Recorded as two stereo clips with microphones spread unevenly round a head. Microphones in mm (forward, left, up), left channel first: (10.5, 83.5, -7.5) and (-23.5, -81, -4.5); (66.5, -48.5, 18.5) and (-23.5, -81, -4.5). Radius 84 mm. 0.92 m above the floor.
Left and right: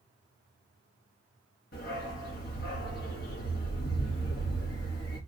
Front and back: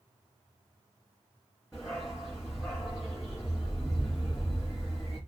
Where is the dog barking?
110° left, 2.5 m.